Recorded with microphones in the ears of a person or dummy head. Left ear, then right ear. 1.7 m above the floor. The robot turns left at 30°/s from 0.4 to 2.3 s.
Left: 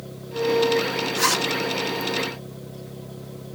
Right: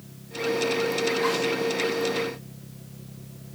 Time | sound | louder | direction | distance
1.1 | a zipper | left 3 dB | 80° left | 2.5 m